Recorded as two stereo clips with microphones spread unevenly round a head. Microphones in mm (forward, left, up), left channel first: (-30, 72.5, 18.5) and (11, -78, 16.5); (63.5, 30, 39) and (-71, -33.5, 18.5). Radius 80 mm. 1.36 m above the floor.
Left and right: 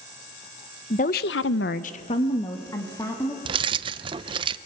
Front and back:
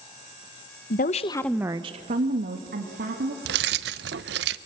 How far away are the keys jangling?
About 0.6 m.